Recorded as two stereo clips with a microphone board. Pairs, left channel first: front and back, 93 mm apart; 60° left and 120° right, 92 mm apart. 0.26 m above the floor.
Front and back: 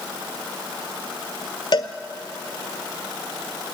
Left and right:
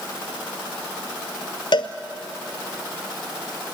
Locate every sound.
1.7 s a cowbell: 30° left, 1.0 m